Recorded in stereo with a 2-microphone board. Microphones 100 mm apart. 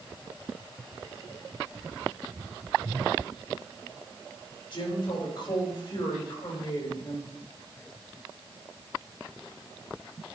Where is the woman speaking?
55° left (ahead or behind), 4.5 m.